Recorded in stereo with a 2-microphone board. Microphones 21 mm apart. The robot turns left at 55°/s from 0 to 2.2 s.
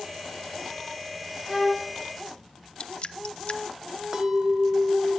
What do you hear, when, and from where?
1.5 s a violin: 10° right (ahead or behind), 9.5 m; by 1.9 s 35° right (ahead or behind), 9.5 m
2.8 s dripping: 55° left (ahead or behind), 0.7 m
4.1 s a clink: 30° right (ahead or behind), 1.1 m